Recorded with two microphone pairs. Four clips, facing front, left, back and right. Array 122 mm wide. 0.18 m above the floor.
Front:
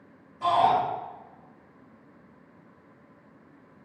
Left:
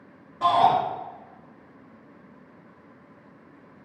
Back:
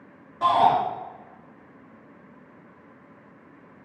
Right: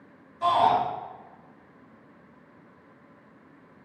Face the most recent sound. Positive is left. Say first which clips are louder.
# left 2 dB, back 3 dB
turn(degrees=145)